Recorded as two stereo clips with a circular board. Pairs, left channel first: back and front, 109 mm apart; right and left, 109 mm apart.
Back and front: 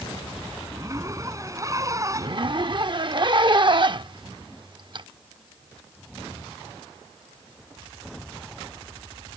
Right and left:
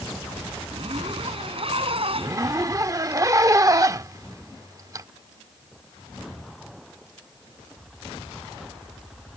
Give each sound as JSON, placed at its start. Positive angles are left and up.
{"t": 0.7, "sound": "a zipper", "azimuth_deg": 60}
{"t": 2.1, "sound": "a zipper", "azimuth_deg": 35}